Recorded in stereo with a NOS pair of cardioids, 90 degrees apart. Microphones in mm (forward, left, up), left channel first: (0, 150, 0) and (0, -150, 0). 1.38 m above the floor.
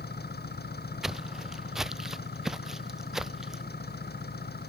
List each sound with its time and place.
0.0 s an engine running: 30° left
1.0 s footsteps: straight ahead